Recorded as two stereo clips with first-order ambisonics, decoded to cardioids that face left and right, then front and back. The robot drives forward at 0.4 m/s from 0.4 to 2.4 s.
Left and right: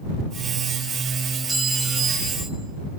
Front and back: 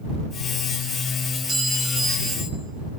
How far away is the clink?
About 1.0 m.